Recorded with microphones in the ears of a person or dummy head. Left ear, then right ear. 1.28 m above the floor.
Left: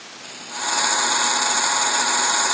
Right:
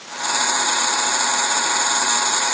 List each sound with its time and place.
Only background noise.